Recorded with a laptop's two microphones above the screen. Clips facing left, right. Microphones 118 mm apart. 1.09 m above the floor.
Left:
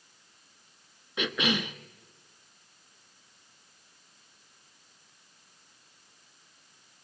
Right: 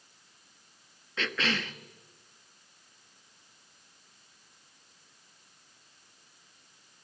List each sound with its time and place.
1.2 s a cough: 15° left (ahead or behind), 1.3 m